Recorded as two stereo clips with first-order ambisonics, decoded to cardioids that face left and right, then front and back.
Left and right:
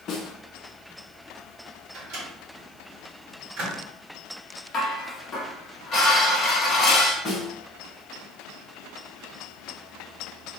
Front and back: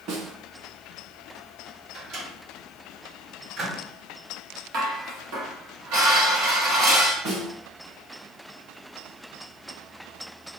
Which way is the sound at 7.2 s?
150° left.